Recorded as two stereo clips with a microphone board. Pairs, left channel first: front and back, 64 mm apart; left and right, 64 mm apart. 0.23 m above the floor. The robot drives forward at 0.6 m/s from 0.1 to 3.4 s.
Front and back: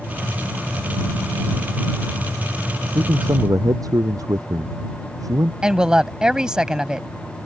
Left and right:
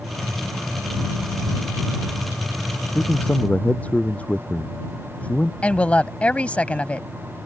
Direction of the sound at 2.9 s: 155° left.